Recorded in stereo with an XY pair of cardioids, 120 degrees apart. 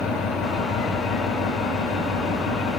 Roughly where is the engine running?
Ahead left.